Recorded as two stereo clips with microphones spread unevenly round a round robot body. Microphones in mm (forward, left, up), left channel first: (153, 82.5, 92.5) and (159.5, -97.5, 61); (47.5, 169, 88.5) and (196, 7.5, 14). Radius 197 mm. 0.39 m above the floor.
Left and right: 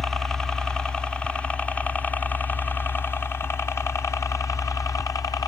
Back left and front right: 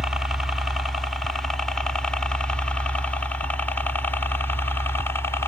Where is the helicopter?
20° right; by 5.5 s 25° left.